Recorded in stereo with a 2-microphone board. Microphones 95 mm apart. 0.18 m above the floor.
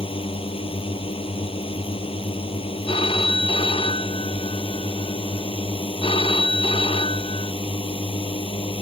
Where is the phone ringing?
65° left (ahead or behind).